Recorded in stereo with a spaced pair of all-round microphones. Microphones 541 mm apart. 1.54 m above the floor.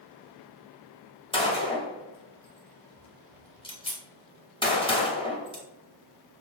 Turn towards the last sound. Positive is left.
turn(degrees=10)  # may be behind; listen again after turning